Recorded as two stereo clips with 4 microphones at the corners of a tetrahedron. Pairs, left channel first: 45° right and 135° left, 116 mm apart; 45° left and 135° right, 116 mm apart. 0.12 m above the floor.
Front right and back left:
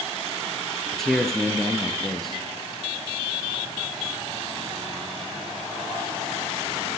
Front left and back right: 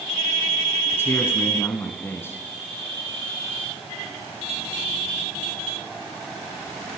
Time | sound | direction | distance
0.9 | a man speaking | 35° left | 1.1 m